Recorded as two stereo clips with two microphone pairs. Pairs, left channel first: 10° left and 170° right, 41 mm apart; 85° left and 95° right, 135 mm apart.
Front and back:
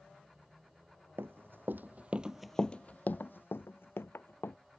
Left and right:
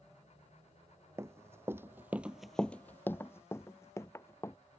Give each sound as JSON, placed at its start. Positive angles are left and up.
{"t": 1.2, "sound": "running footsteps", "azimuth_deg": -160}